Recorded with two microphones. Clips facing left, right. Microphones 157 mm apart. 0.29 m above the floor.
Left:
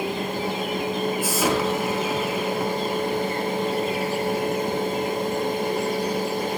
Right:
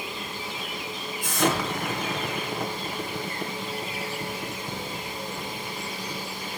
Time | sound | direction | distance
1.2 | an explosion | 5° left (ahead or behind) | 5.5 m